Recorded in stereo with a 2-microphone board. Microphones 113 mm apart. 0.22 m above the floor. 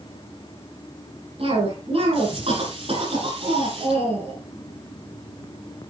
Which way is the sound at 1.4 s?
60° right (ahead or behind).